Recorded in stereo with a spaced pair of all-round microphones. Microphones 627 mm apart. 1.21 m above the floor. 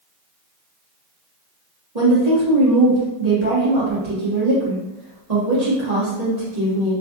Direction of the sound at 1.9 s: 85° right.